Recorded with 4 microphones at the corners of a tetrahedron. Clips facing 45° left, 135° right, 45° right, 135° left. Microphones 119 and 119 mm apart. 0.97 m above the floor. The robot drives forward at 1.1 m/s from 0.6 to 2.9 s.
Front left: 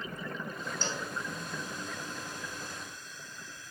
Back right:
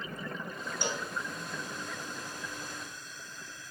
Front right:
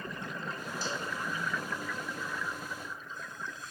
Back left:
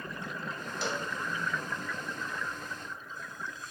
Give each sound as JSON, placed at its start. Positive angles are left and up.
{"t": 0.8, "sound": "a cowbell", "azimuth_deg": 150, "distance_m": 2.0}